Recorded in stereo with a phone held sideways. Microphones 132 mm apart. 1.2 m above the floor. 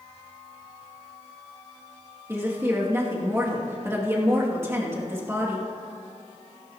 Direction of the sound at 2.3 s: 20° right (ahead or behind).